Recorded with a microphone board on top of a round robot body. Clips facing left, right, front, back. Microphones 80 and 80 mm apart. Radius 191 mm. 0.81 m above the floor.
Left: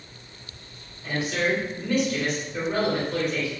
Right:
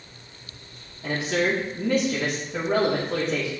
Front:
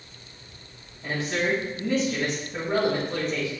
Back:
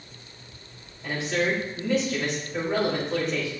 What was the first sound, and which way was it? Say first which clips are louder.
A man speaking: right 2 dB, back 1 dB; 70° right.